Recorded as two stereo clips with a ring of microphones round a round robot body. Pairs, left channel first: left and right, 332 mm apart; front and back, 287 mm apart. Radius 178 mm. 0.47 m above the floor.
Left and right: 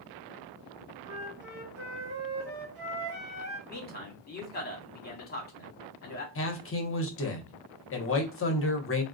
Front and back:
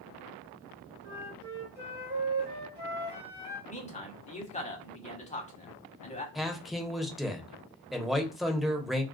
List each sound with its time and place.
1.0 s a flute: 130° right, 1.3 m
3.7 s a man speaking: 50° left, 1.4 m
6.3 s a man speaking: 90° left, 0.9 m